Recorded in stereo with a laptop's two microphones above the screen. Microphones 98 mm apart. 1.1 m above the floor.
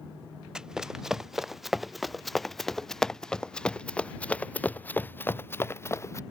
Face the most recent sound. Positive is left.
turn(degrees=30)  # may be behind; listen again after turning